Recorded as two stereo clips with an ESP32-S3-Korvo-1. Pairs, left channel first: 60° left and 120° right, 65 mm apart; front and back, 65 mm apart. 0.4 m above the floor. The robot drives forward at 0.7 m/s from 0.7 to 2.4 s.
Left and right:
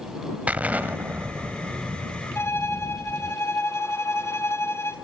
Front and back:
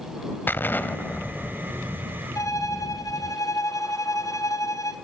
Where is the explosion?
55° right, 1.4 m; by 3.4 s 110° right, 1.3 m.